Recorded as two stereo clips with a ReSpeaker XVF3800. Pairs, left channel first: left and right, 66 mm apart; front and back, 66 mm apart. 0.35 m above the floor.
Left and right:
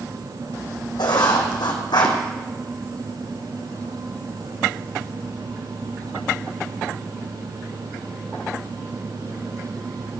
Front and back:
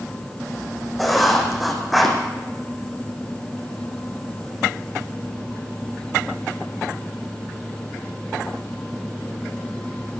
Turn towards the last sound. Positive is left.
turn(degrees=90)